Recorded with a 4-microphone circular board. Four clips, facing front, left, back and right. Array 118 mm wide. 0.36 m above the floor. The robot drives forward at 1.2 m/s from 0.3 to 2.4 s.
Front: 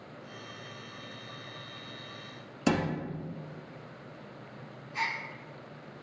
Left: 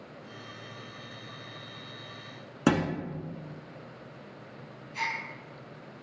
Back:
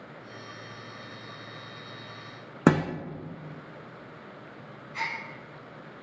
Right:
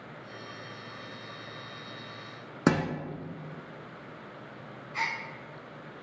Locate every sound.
2.7 s a thud: 175° right, 0.8 m
4.9 s a gasp: 115° right, 2.0 m